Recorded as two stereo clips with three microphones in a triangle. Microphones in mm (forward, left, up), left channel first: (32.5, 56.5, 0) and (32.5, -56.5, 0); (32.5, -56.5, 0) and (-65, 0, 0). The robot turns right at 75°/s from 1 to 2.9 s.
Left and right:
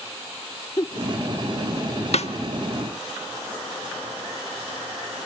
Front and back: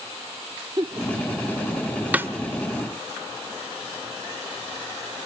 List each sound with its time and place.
0.8 s a giggle: 125° left, 0.9 m; by 1.1 s 130° left, 0.9 m
2.1 s a snare drum: 75° left, 1.1 m; by 2.3 s 85° left, 1.1 m